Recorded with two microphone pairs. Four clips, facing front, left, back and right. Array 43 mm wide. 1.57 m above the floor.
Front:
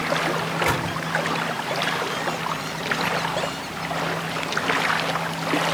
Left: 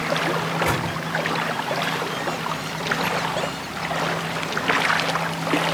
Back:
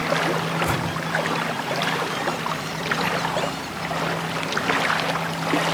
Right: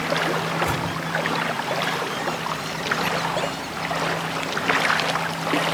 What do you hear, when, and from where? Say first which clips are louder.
0.4 s a microwave: left 1 dB, even; 25° left, 4.5 m